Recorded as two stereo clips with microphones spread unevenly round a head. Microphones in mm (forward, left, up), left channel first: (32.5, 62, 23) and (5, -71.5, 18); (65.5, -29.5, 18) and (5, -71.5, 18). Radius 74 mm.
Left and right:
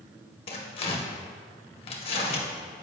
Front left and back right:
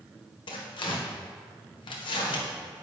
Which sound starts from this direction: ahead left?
Tearing paper, at 0.5 s.